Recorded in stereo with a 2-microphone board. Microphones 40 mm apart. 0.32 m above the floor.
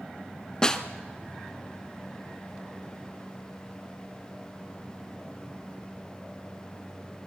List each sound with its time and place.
0.6 s a snare drum: 15° left (ahead or behind), 1.1 m